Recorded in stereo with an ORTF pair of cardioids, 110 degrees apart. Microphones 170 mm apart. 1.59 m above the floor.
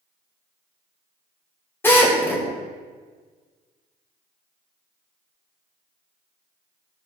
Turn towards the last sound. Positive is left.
turn(degrees=15)